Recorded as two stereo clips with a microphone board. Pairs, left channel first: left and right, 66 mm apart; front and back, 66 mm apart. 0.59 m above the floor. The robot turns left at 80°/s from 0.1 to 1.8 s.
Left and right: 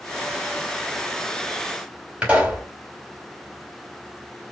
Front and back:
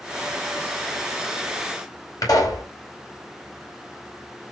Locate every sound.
2.2 s a pop: 15° right, 3.5 m